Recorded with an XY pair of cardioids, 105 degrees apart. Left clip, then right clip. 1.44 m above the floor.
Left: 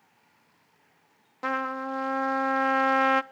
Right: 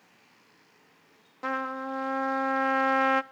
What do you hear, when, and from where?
1.4 s a trumpet: 20° left, 0.7 m